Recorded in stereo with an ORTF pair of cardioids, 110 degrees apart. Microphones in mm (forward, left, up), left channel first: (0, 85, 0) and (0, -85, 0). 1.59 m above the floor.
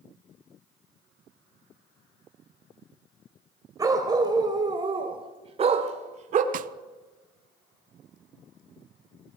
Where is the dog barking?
20° right, 3.5 m; by 6.4 s 55° right, 2 m.